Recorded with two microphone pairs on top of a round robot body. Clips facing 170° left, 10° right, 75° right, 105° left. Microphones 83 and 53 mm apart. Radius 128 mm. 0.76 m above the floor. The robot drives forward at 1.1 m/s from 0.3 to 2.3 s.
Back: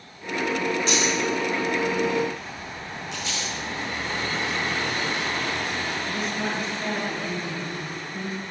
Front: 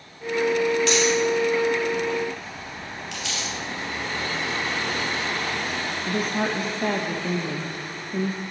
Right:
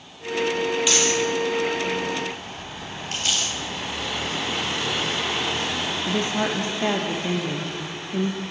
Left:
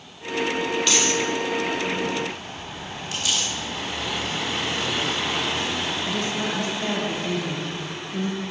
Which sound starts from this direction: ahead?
A dropped coin, at 0.9 s.